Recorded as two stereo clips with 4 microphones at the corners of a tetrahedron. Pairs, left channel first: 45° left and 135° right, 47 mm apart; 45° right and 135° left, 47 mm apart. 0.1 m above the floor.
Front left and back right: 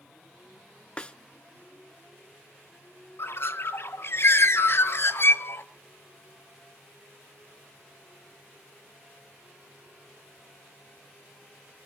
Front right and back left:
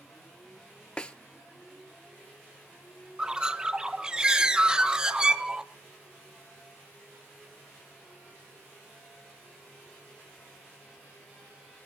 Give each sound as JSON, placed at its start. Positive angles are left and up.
{"t": 1.0, "sound": "a snare drum", "azimuth_deg": 0, "distance_m": 0.6}
{"t": 3.2, "sound": "a bird", "azimuth_deg": 65, "distance_m": 0.6}